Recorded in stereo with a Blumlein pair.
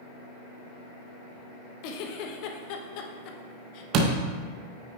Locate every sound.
1.8 s a giggle: 45° left, 0.7 m
3.9 s a door slam: 35° right, 0.8 m